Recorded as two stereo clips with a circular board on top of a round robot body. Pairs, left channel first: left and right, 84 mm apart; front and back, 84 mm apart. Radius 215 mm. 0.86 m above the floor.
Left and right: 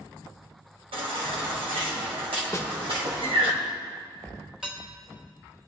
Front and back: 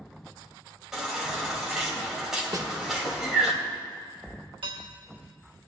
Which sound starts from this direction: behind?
Dishes clattering, at 4.6 s.